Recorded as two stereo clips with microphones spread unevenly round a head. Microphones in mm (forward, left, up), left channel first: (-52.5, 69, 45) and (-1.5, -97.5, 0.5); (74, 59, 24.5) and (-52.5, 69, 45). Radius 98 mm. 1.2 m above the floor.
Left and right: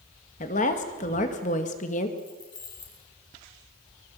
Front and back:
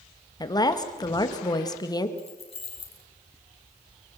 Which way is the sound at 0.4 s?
50° left.